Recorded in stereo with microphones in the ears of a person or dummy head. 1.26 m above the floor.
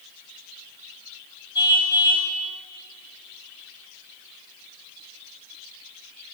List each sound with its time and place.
1.6 s a car horn: 25° left (ahead or behind), 5 m